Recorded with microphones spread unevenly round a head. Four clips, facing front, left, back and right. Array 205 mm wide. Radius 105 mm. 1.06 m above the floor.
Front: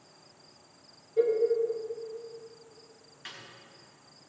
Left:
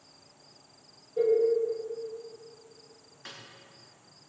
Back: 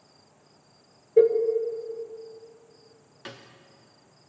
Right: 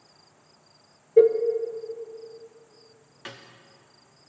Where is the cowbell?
120° right, 0.8 m.